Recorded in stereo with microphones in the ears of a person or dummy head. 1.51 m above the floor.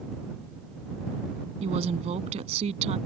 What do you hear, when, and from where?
1.6 s a woman speaking: 35° right (ahead or behind)